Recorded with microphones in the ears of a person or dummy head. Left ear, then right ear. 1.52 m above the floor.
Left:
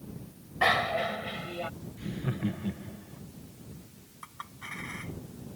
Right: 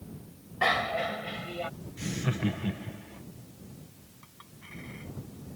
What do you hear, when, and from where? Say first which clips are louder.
0.6 s a bicycle bell: left 1 dB; 5° left (ahead or behind); by 1.7 s 5° right (ahead or behind)
2.0 s laughter: right 4 dB; 90° right
4.2 s a clink: left 10 dB; 50° left (ahead or behind)